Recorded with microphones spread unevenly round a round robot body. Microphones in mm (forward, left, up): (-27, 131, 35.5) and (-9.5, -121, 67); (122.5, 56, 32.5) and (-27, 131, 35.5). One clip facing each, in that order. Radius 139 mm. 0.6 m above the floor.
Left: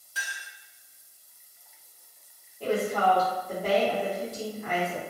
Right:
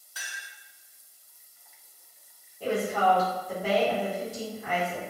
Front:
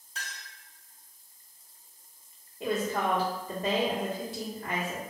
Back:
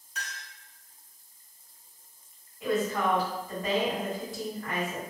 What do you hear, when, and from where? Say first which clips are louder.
0.1 s a clink: left 4 dB, back 2 dB; 30° left, 1.5 m
2.6 s a woman speaking: left 1 dB, back 2 dB; 15° left, 1.5 m